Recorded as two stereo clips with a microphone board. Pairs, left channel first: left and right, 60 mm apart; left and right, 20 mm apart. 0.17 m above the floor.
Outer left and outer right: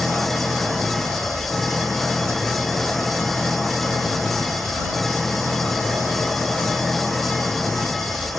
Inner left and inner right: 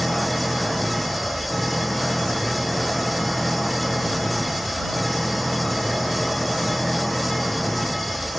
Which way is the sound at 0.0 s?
Centre (ahead or behind).